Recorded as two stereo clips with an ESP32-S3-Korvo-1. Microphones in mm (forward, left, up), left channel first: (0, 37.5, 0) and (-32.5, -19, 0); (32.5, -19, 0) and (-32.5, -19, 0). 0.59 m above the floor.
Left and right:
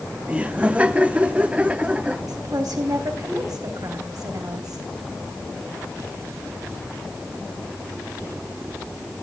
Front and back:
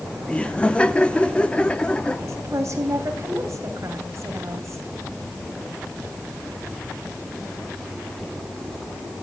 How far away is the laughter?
About 1.2 m.